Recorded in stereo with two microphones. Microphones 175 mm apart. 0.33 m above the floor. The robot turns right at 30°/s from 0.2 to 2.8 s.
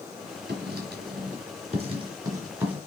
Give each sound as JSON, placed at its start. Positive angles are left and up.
{"t": 0.5, "sound": "writing", "side_deg": -70, "distance_m": 3.5}